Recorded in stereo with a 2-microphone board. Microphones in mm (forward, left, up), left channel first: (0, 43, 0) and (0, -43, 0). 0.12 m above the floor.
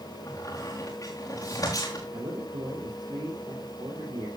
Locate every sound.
0.3 s a squeak: 45° left (ahead or behind), 4.5 m
2.1 s a man speaking: 55° right (ahead or behind), 4.5 m